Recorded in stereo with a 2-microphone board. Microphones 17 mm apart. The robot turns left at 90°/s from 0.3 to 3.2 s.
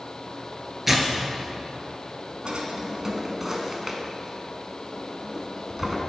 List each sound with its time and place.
0.9 s tearing paper: 5° right (ahead or behind), 0.7 m; by 1.1 s 25° right (ahead or behind), 0.7 m
2.5 s a drawer: 75° right (ahead or behind), 0.6 m; by 6.0 s 25° right (ahead or behind), 0.6 m